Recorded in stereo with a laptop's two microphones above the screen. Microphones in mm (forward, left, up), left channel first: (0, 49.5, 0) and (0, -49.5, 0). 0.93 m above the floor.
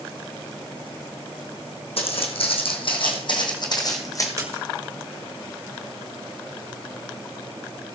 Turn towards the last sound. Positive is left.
turn(degrees=-30)  # may be behind; listen again after turning